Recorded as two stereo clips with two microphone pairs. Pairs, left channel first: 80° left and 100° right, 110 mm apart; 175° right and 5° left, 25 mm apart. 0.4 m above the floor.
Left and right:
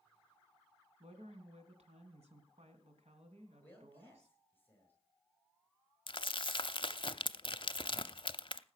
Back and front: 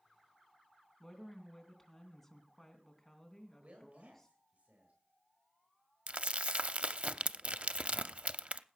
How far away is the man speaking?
About 7 m.